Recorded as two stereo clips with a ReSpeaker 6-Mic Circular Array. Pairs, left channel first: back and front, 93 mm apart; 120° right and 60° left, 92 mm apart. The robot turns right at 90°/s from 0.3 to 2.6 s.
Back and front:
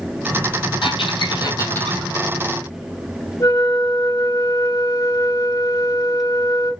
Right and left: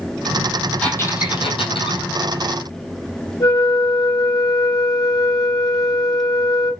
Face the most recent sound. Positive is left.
turn(degrees=-145)